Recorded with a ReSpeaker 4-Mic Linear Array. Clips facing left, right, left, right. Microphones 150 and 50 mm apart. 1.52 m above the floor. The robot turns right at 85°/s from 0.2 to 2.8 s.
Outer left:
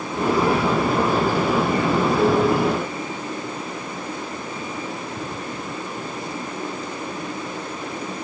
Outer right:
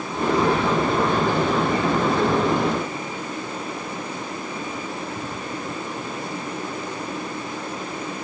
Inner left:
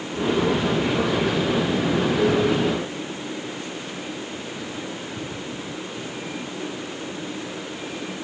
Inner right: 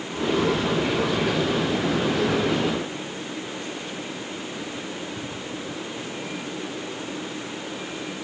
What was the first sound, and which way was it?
Only background noise.